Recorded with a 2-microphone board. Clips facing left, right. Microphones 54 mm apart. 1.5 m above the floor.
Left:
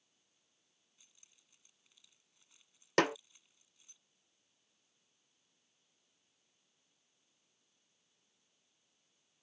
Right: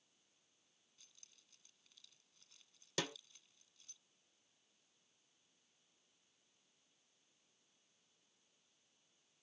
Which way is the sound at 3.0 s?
55° left (ahead or behind).